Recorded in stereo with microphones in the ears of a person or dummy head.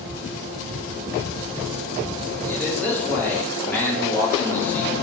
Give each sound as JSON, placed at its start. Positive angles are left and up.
{"t": 2.4, "sound": "a man speaking", "side_deg": 10, "distance_m": 3.0}